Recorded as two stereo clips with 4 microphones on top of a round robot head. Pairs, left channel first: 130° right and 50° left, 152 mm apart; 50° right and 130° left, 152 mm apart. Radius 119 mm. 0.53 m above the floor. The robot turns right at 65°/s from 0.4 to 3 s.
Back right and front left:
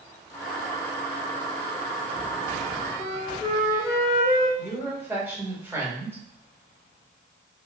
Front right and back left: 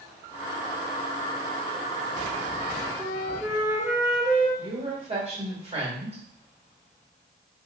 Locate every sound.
3.0 s a flute: 60° left, 1.4 m
4.6 s a woman speaking: 120° left, 1.5 m